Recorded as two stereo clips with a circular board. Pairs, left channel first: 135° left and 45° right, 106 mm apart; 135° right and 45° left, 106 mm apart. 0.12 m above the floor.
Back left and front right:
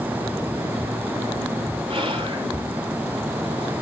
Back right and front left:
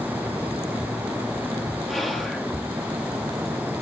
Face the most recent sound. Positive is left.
turn(degrees=-45)